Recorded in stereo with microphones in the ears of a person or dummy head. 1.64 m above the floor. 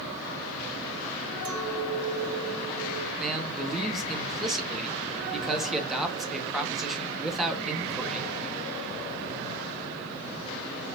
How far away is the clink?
About 3 m.